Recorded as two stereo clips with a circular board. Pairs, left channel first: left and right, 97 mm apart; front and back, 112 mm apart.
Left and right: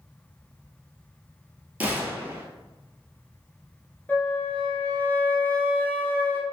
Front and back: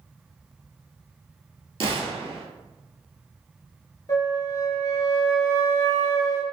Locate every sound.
1.8 s a gunshot: 160° right, 0.6 m
4.1 s a flute: 30° left, 0.6 m